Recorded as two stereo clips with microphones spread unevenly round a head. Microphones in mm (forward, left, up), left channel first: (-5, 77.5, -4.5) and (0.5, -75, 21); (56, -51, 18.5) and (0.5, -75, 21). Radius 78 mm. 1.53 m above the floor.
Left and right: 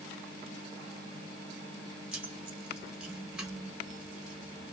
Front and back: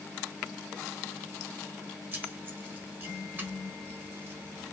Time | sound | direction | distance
2.1 | keys jangling | 150° right | 0.8 m